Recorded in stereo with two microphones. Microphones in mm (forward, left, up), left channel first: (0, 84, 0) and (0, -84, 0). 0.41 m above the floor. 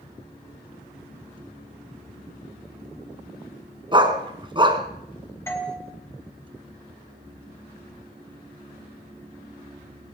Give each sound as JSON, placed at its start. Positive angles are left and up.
{"t": 3.9, "sound": "a dog barking", "side_deg": -30, "distance_m": 1.6}
{"t": 5.5, "sound": "a doorbell", "side_deg": 15, "distance_m": 2.0}